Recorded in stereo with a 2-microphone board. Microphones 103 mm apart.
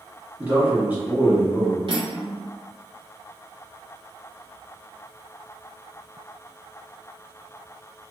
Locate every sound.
0.4 s a man speaking: 15° right (ahead or behind), 1.1 m
1.9 s cutlery clinking: 55° right (ahead or behind), 1.1 m